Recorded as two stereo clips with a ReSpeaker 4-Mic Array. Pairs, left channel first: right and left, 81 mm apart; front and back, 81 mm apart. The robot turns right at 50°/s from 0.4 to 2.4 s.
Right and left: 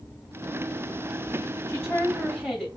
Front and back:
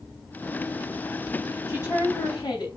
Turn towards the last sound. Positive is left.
turn(degrees=-5)